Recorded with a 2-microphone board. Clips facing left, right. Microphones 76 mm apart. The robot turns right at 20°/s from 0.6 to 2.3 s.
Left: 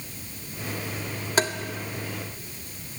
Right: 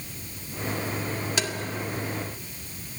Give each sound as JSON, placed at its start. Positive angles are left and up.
{"t": 1.4, "sound": "tapping", "side_deg": 40, "distance_m": 1.7}